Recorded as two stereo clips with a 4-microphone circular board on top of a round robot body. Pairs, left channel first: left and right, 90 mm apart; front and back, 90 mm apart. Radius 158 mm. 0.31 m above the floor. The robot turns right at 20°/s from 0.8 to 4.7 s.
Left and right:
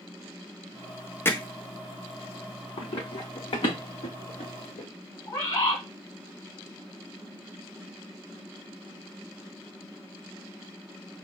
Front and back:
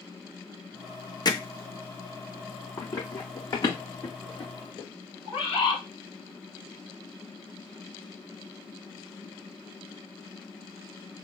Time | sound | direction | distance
1.2 | hammering | 30° left | 0.9 m
2.8 | running footsteps | 55° left | 1.1 m
5.2 | a bird | 35° left | 3 m